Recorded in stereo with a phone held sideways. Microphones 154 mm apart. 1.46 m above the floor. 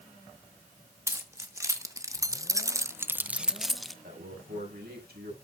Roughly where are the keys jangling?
Centre.